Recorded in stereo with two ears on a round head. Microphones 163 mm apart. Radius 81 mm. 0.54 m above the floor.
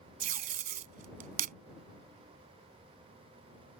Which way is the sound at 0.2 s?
45° right (ahead or behind).